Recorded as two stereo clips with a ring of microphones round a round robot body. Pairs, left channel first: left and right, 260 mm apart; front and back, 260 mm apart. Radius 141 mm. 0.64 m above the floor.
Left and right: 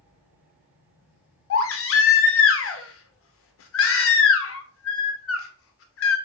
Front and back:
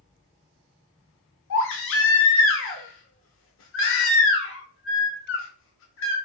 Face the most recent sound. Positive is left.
turn(degrees=50)